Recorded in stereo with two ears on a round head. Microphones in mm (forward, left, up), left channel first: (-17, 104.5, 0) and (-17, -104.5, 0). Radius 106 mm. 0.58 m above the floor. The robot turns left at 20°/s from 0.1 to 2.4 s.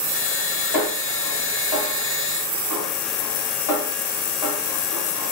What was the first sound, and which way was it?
A snare drum, 75° left (ahead or behind).